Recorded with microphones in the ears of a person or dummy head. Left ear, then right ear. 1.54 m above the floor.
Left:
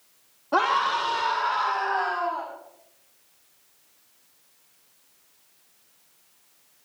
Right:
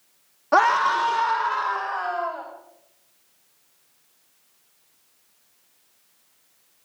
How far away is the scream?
About 1.0 m.